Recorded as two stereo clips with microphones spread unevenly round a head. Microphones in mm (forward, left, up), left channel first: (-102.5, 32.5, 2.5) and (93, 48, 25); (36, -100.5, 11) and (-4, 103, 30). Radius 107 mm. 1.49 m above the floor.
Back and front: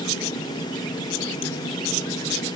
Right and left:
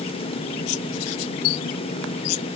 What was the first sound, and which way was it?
Only background noise.